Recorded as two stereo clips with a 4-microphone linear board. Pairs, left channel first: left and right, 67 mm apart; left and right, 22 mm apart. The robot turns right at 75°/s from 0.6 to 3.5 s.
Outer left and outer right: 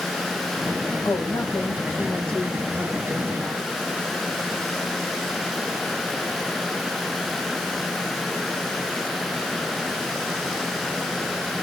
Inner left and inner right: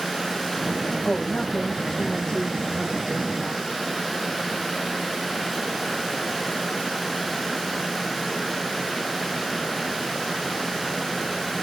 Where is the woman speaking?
70° left, 5.5 m; by 3.7 s 105° right, 5.5 m.